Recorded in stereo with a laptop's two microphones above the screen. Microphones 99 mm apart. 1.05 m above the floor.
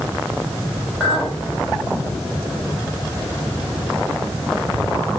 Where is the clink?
5° left (ahead or behind), 2.5 m.